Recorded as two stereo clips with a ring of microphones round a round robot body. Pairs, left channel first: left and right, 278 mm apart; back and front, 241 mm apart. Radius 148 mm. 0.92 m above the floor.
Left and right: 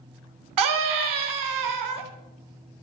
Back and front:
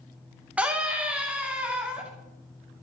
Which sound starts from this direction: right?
A scream, at 0.6 s.